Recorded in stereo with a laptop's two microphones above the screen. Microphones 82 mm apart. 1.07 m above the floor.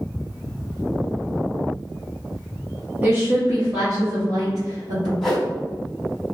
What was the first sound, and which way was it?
A woman speaking, 25° right (ahead or behind).